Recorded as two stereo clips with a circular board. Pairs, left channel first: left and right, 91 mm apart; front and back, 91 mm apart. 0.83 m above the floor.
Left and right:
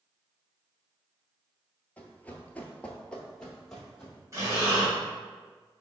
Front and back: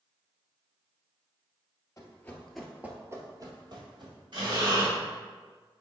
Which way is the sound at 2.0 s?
25° left.